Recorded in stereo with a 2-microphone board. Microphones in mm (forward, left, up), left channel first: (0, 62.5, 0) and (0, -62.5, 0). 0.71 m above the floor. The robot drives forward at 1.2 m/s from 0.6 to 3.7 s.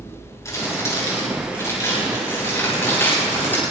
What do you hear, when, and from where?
0.5 s crumpling: 25° left (ahead or behind), 9 m; by 3.6 s 15° left (ahead or behind), 12.5 m